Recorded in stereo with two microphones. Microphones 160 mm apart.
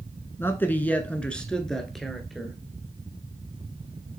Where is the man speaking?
15° left (ahead or behind), 1.1 m; by 2.6 s centre (ahead or behind), 1.7 m.